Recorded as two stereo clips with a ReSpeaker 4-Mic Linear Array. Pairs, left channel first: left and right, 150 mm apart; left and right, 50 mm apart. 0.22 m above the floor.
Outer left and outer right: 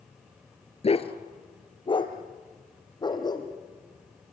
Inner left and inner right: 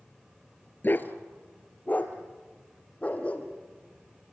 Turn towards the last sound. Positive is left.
turn(degrees=25)  # may be behind; listen again after turning